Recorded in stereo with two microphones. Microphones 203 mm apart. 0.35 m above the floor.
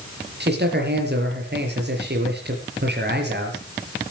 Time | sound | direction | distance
0.4 | a man speaking | 55° right (ahead or behind) | 5.5 m